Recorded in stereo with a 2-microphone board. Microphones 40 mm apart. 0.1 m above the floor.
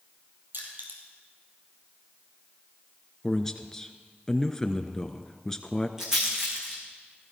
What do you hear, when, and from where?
0.5 s crushing: 60° right (ahead or behind), 4 m
3.2 s a man speaking: 15° left (ahead or behind), 1.1 m
6.0 s a rattle: 15° right (ahead or behind), 4.5 m